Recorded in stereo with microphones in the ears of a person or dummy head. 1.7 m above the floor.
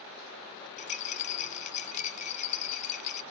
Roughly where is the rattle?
Left.